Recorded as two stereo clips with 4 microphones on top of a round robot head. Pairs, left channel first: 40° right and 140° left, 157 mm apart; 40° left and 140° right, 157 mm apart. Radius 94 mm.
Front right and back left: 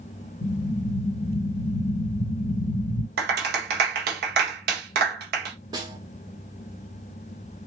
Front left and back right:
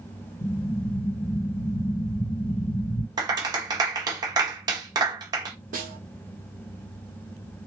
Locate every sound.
0.4 s an explosion: 30° right, 0.7 m
3.2 s a clap: 155° left, 1.2 m
5.7 s a snare drum: 160° right, 1.4 m